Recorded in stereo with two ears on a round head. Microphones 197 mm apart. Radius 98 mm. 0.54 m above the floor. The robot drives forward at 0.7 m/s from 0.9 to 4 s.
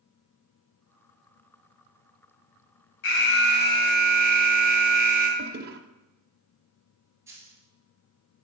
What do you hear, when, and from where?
3.0 s an alarm: 55° left (ahead or behind), 1.1 m; by 5.3 s 35° left (ahead or behind), 1.4 m
5.4 s a toilet flushing: 45° right (ahead or behind), 0.6 m
7.3 s a dropped coin: 15° right (ahead or behind), 1.9 m